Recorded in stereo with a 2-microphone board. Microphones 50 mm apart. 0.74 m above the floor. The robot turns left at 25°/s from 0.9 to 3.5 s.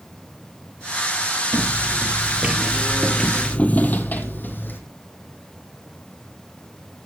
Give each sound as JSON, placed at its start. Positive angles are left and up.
{"t": 1.5, "sound": "footsteps", "side_deg": -50, "distance_m": 1.1}